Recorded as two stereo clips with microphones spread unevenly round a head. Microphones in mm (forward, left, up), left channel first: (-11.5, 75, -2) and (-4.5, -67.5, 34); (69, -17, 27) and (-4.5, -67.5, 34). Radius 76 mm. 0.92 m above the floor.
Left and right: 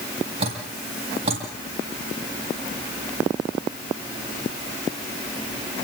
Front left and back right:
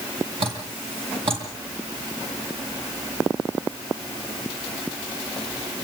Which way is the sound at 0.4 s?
135° right.